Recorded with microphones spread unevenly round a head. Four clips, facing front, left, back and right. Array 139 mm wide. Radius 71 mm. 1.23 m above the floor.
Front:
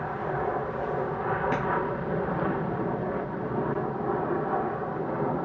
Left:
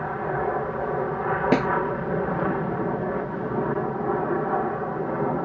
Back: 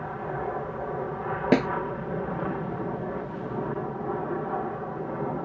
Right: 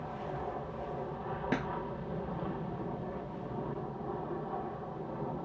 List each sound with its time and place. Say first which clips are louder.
0.0 s an aircraft: left 13 dB, front 2 dB; 80° left
1.5 s a snare drum: left 13 dB, back 6 dB; 140° left